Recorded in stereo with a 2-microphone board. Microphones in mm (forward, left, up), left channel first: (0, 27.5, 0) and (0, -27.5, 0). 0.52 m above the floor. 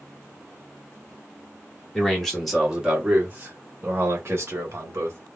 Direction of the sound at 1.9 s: 10° left (ahead or behind).